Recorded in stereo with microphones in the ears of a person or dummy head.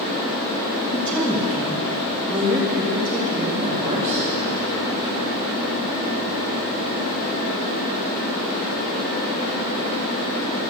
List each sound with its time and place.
0.9 s a woman speaking: 5° left (ahead or behind), 1.1 m; by 4.3 s 30° right (ahead or behind), 3.5 m